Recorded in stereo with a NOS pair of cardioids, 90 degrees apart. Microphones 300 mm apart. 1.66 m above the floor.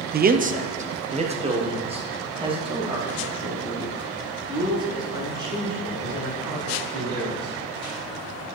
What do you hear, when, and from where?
0.1 s a man speaking: 30° right, 0.6 m; by 7.5 s 15° right, 6 m